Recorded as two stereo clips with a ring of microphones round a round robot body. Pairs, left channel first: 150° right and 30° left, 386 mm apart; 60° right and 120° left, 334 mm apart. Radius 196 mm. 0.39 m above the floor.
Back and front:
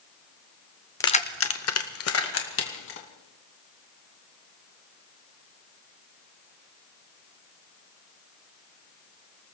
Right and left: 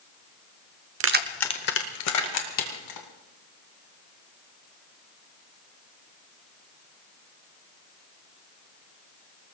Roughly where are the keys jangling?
Behind left.